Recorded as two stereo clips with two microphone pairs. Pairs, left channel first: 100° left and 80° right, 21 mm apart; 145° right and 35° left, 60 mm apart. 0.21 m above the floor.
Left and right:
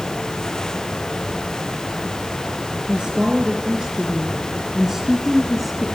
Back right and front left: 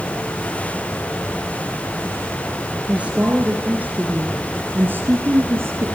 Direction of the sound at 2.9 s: 30° right.